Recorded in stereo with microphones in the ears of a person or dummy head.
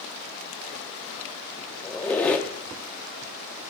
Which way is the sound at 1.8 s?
5° left (ahead or behind).